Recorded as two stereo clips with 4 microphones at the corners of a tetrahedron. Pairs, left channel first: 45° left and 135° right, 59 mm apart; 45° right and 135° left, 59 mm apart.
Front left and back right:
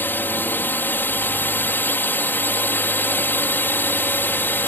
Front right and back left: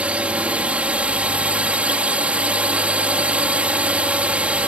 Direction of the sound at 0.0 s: 80° left.